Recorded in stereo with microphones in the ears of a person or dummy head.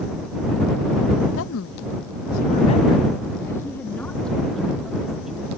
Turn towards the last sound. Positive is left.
turn(degrees=-5)  # may be behind; listen again after turning